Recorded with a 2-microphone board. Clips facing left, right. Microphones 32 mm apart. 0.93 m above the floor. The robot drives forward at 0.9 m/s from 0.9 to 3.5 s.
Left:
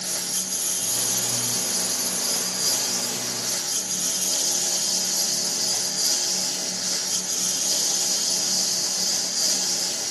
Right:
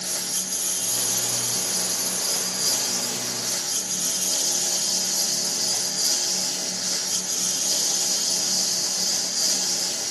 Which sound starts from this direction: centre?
A lawn mower, at 0.0 s.